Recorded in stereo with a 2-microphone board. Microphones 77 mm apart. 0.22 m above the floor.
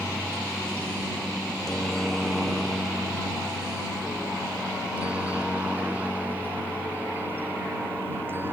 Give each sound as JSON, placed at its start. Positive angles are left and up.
{"t": 0.0, "sound": "a helicopter", "side_deg": 25}